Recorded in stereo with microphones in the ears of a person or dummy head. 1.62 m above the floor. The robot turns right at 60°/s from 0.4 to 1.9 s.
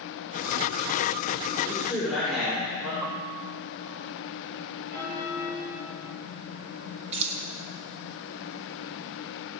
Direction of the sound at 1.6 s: 20° right (ahead or behind).